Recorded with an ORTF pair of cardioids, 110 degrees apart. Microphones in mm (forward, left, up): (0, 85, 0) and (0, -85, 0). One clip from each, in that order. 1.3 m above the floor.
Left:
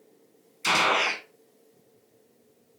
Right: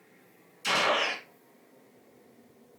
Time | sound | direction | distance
0.6 | a gunshot | 55° left | 1.3 m